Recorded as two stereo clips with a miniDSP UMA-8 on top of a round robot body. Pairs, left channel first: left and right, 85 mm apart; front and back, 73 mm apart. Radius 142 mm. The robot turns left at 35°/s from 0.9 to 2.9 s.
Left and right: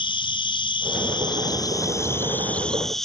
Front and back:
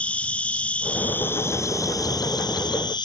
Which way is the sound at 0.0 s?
75° left.